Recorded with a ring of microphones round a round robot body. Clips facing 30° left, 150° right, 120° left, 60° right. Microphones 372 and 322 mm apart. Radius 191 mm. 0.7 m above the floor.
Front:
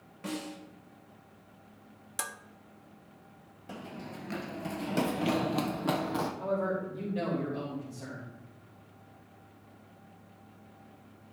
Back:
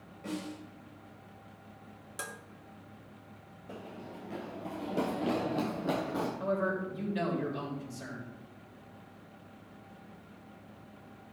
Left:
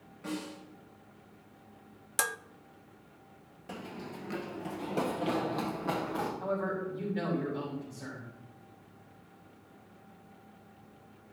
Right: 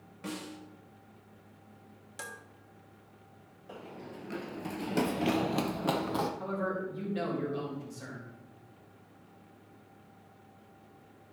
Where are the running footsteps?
95° left, 0.9 m; by 6.3 s 35° right, 1.8 m.